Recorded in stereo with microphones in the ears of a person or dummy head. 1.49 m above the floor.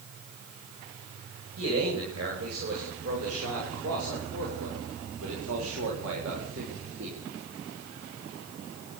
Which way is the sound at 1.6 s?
75° right (ahead or behind).